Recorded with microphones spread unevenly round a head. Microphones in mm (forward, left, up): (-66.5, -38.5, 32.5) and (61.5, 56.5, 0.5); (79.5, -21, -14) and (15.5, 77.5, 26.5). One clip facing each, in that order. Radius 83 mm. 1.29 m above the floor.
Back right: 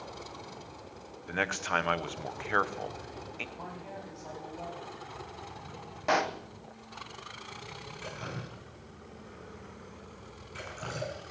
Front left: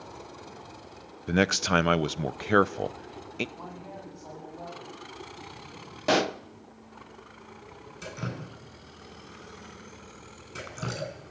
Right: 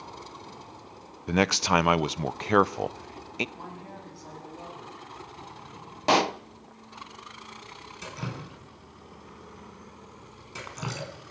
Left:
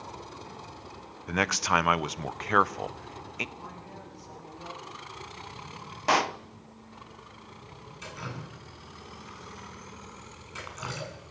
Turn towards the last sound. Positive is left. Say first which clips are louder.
# front left 4 dB, right 3 dB
turn(degrees=-5)